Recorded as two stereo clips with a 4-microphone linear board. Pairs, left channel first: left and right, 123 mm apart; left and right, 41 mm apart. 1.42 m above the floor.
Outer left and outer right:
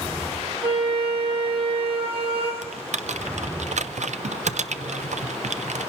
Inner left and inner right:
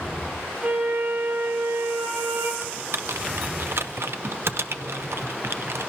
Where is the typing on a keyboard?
80° right, 0.6 m.